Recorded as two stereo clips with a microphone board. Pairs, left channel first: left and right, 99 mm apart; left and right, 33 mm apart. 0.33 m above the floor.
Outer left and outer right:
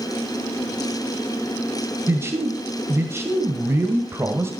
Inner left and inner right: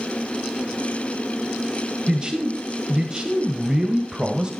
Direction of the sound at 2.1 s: 25° right (ahead or behind).